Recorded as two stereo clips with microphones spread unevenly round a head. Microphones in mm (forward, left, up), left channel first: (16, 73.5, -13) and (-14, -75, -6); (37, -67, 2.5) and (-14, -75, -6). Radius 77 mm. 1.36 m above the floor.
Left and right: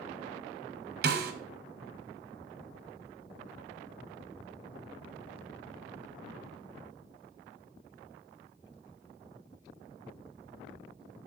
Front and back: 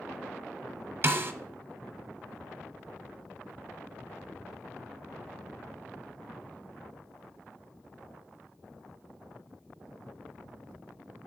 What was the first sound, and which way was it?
A snare drum, 125° right.